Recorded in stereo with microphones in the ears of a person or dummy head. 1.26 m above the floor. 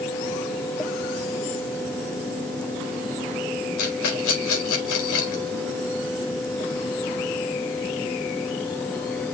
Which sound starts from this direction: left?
A rattle, at 3.8 s.